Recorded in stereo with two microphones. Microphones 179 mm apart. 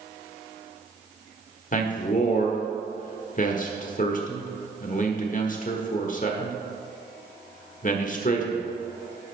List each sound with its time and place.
1.7 s a man speaking: 45° left (ahead or behind), 1.2 m